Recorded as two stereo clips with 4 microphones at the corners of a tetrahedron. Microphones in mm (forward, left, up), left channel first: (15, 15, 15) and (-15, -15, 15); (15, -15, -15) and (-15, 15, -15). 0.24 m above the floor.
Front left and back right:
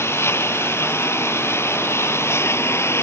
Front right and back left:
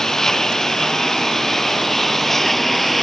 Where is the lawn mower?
30° left; by 3.0 s 40° left.